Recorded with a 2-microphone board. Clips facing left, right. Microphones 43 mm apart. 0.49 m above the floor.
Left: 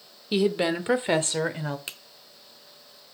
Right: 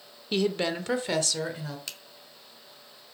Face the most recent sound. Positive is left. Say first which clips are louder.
# left 2 dB
turn(degrees=25)  # may be behind; listen again after turning